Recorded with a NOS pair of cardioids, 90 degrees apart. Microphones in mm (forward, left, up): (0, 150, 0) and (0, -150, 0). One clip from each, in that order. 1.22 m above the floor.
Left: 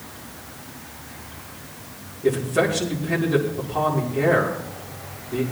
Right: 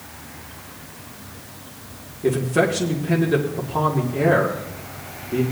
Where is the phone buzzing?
No phone buzzing in this recording.